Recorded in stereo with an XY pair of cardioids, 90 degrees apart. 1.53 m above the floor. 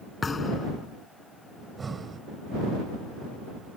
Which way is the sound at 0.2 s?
35° left.